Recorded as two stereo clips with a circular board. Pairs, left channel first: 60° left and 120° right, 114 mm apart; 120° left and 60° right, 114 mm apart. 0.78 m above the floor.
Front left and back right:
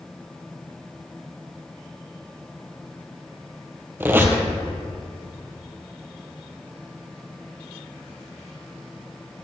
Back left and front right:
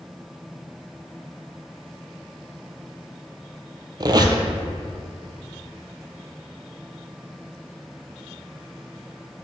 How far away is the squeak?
About 0.9 m.